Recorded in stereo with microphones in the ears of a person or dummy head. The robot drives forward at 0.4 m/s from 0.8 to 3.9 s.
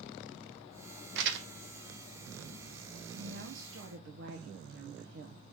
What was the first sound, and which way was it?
Crumpling, 60° right (ahead or behind).